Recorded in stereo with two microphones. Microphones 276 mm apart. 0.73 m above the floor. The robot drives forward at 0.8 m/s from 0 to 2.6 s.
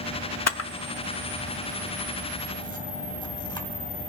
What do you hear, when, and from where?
0.5 s a camera shutter: 70° left (ahead or behind), 0.6 m; by 4.1 s 15° left (ahead or behind), 2.0 m